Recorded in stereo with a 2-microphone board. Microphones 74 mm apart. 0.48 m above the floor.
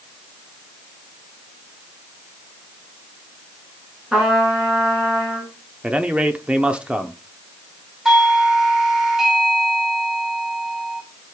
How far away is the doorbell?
About 2.5 m.